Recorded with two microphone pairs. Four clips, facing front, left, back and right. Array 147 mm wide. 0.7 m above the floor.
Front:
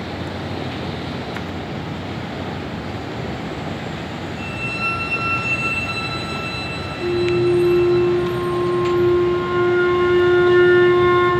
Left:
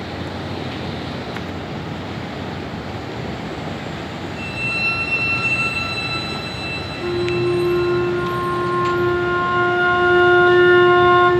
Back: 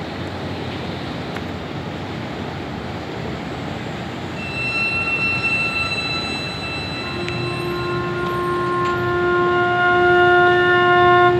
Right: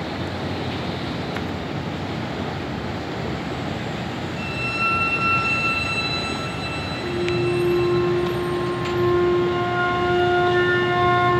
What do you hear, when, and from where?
4.4 s a violin: 160° left, 6 m
7.0 s a flute: 155° left, 4 m